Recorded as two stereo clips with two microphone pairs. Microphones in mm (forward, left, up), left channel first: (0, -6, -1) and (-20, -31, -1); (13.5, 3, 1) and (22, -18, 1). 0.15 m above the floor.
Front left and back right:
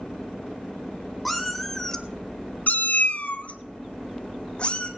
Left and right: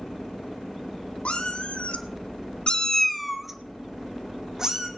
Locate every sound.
1.2 s a cat meowing: 145° left, 1.4 m; by 4.9 s 5° right, 2.5 m